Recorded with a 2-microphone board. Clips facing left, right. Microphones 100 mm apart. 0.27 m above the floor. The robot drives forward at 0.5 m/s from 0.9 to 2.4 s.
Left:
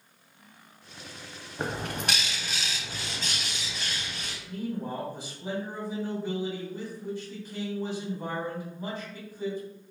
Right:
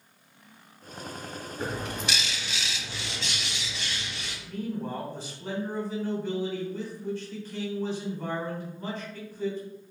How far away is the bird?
About 0.5 m.